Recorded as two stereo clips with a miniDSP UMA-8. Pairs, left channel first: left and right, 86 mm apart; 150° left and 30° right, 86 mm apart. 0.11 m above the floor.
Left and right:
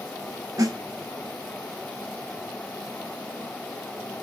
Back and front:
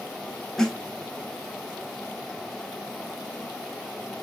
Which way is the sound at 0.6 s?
125° right.